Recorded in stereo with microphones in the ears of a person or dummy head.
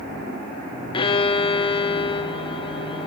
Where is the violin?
25° left (ahead or behind), 1.0 m.